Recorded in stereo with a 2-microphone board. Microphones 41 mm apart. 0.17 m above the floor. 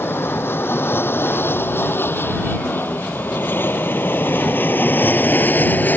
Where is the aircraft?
65° left (ahead or behind); by 6.0 s 45° left (ahead or behind).